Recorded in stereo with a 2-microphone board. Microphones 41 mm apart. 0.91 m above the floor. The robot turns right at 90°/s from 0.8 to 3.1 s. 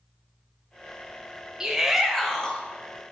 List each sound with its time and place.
1.6 s a shout: 15° right (ahead or behind), 0.6 m; by 2.6 s 20° left (ahead or behind), 0.6 m